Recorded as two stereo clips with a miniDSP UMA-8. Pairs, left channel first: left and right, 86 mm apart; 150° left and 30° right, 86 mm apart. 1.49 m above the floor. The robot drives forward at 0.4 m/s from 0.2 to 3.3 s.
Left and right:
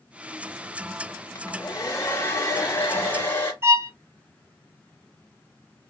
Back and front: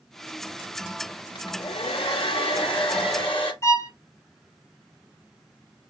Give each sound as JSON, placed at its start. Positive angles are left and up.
{"t": 1.4, "sound": "a hair dryer", "azimuth_deg": 140, "distance_m": 1.4}
{"t": 3.6, "sound": "a violin", "azimuth_deg": -150, "distance_m": 1.2}